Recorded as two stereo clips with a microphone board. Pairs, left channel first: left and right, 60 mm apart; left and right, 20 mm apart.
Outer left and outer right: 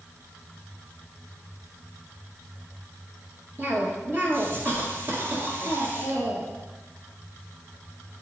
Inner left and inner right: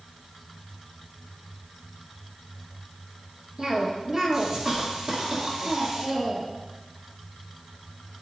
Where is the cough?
40° right (ahead or behind), 1.4 m.